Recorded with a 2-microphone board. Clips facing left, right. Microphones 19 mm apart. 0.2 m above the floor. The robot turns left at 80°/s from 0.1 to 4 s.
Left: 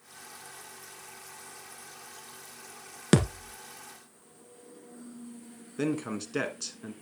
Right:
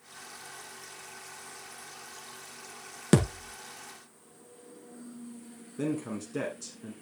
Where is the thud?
25° left, 1.1 m; by 3.5 s 10° right, 1.1 m.